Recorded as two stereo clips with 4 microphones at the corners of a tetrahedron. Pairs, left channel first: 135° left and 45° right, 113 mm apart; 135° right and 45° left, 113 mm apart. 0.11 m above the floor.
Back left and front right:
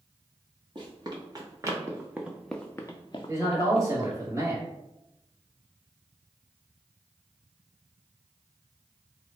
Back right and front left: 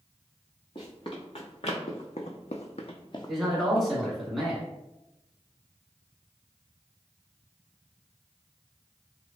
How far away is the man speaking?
About 1.2 m.